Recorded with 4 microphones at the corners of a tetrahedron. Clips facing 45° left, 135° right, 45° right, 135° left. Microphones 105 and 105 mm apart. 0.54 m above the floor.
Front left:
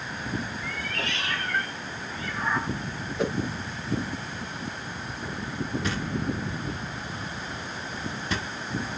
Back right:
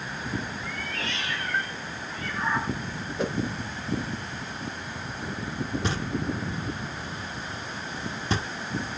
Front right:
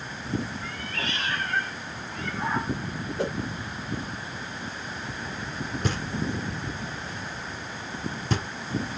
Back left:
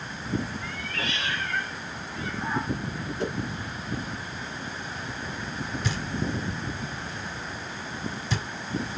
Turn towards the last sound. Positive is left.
turn(degrees=-75)